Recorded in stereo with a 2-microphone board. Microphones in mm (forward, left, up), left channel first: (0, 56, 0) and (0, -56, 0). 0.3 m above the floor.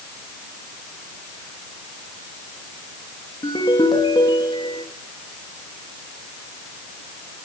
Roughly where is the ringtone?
Left.